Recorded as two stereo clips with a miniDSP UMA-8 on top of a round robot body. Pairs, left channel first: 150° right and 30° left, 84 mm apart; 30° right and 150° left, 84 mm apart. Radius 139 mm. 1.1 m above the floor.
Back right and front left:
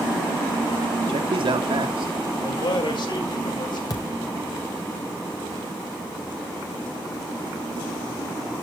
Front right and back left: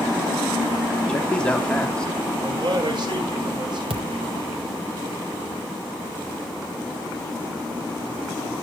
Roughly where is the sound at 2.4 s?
Behind.